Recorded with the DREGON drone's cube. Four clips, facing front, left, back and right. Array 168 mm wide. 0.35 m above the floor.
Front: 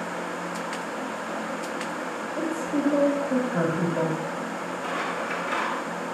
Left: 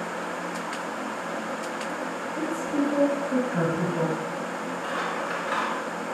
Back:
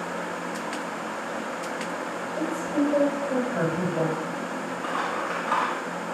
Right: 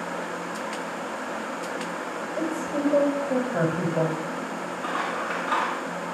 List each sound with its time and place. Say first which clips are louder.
2.4 s a woman speaking: left 1 dB, back 1 dB; 110° right, 1.7 m
4.8 s scissors: right 2 dB, back 2 dB; 140° right, 1.6 m